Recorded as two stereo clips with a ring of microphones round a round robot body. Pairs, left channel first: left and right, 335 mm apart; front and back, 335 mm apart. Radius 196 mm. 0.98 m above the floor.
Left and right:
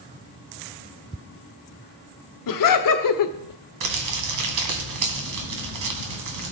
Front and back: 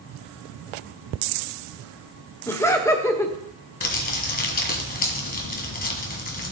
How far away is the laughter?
About 1.1 m.